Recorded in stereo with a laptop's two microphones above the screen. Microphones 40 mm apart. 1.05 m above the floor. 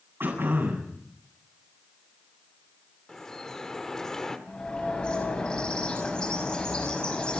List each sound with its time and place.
0.2 s throat clearing: 65° right (ahead or behind), 8 m
3.1 s dripping: 10° left (ahead or behind), 1.5 m
4.5 s a bird: 20° left (ahead or behind), 6.5 m